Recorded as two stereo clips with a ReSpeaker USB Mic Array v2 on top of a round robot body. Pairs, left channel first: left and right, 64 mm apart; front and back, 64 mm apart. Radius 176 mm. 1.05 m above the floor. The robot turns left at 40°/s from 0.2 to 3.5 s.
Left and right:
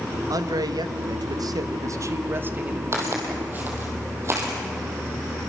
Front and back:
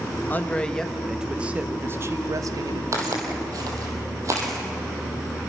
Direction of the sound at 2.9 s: 140° right.